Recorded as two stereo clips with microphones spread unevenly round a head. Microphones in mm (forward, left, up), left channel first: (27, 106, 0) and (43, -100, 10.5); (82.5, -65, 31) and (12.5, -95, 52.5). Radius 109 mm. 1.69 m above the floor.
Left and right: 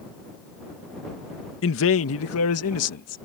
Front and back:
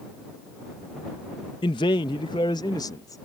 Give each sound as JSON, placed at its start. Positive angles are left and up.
{"t": 1.6, "sound": "a man speaking", "azimuth_deg": 70}